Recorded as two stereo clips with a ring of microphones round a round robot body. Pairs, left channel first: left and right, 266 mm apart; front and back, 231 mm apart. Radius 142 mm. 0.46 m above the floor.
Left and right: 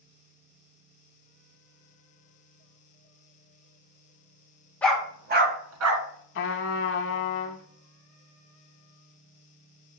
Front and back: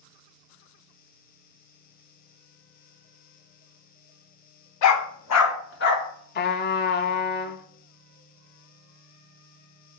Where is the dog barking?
5° left, 0.8 m; by 6.1 s 60° right, 1.5 m.